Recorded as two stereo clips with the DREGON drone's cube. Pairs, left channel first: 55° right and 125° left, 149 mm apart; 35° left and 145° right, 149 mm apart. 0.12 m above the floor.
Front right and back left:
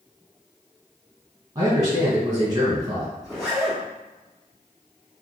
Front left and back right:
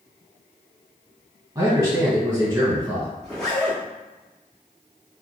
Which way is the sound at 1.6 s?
170° left.